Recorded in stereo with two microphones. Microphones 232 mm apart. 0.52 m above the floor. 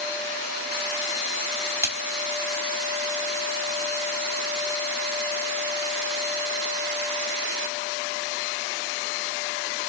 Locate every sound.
1.8 s a splash: 10° right (ahead or behind), 2 m